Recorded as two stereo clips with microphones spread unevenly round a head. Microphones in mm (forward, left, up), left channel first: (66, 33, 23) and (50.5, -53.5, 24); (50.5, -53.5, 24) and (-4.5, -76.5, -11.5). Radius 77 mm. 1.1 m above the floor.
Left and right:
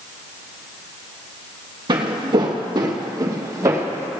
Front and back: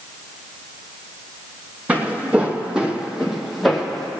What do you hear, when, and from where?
1.9 s footsteps: 80° right, 2.5 m; by 4.1 s 45° right, 2.5 m